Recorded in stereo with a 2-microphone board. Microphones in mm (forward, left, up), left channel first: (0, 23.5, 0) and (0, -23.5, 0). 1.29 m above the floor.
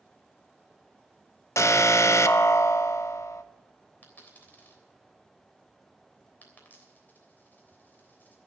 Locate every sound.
1.6 s an alarm: 75° left (ahead or behind), 0.6 m
4.0 s a dropped coin: 35° left (ahead or behind), 3 m